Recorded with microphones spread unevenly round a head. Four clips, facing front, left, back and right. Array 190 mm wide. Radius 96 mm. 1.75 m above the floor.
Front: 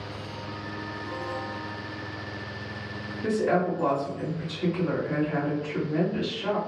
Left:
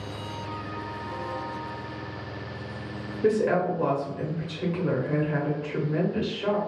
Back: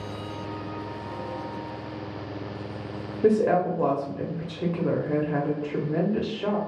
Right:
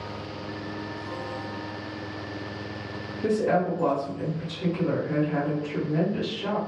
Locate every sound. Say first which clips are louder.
3.2 s a woman speaking: left 1 dB, back 4 dB; 175° left, 0.9 m